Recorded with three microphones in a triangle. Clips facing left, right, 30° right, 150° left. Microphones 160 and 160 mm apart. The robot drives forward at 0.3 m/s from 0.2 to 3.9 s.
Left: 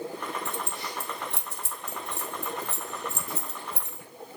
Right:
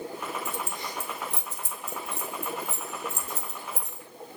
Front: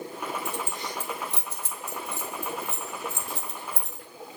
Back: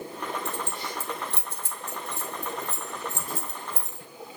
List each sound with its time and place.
0.5 s keys jangling: 85° left, 2.5 m; by 4.0 s 110° left, 2.5 m